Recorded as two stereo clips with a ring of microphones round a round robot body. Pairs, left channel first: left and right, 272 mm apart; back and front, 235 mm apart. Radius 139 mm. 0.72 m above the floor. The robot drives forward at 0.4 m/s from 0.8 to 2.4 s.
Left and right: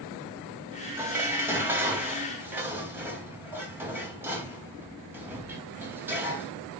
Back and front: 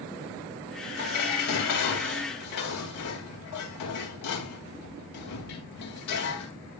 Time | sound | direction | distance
1.0 | dishes clattering | 170° right | 3 m